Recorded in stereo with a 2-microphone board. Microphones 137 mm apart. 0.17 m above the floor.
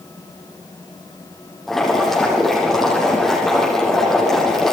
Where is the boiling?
Centre (ahead or behind), 7 m.